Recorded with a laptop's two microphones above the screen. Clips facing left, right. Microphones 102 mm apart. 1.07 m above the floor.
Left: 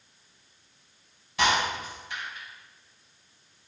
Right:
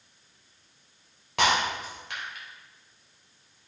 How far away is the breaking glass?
About 3 m.